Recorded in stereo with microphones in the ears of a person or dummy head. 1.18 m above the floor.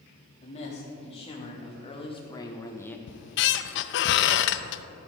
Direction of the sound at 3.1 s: 60° left (ahead or behind).